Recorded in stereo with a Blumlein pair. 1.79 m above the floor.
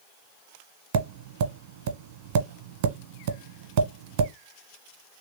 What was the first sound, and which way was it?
Tapping, 50° right.